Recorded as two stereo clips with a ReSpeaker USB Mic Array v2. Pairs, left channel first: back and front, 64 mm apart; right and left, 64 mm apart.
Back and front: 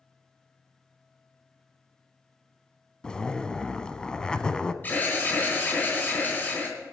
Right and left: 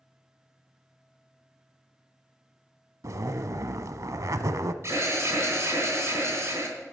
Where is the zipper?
105° left, 0.5 m.